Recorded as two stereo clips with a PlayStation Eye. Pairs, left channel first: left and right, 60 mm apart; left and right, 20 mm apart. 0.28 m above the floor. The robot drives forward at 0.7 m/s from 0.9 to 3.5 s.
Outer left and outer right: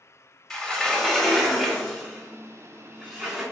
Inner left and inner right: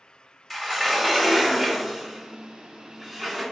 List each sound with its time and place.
0.5 s a sliding door: 5° left (ahead or behind), 1.0 m